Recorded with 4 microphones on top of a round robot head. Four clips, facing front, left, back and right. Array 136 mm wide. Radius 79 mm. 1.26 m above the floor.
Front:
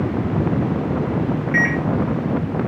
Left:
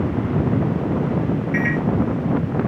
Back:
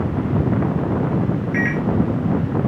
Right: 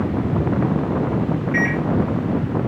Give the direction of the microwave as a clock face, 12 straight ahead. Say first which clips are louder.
Right 1 dB, front 2 dB; 1 o'clock.